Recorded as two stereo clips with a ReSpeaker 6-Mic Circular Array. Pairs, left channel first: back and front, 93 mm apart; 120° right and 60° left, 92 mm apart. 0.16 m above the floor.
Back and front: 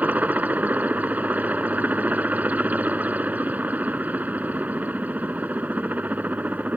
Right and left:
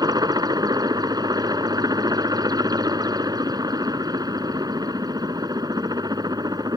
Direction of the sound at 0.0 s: 65° left.